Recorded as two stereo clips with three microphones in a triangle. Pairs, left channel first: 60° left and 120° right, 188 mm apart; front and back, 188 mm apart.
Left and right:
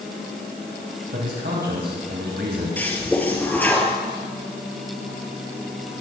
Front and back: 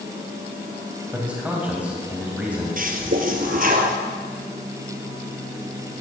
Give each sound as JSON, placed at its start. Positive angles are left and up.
{"t": 1.1, "sound": "a man speaking", "azimuth_deg": -100, "distance_m": 3.0}
{"t": 2.8, "sound": "a toilet flushing", "azimuth_deg": 140, "distance_m": 1.7}